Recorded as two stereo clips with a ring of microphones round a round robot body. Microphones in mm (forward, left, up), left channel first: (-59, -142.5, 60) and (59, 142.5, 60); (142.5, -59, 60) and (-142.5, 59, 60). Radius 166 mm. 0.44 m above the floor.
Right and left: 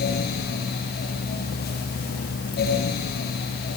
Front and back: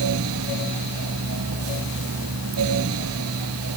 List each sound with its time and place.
Only background noise.